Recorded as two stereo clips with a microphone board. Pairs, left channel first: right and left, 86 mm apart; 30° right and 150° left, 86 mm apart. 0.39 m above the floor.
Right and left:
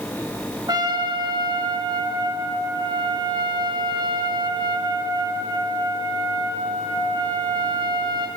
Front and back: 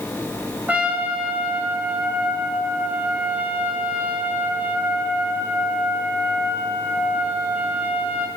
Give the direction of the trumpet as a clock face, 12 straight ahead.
9 o'clock.